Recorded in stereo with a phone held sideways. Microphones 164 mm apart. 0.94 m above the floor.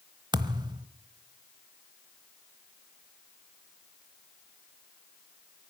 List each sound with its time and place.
0.3 s a thud: 25° right (ahead or behind), 0.9 m